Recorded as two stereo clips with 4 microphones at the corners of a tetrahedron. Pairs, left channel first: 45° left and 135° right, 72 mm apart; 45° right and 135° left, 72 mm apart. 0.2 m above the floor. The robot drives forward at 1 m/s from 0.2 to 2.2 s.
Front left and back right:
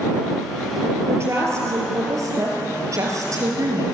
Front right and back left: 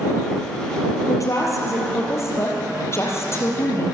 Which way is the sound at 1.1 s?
85° right.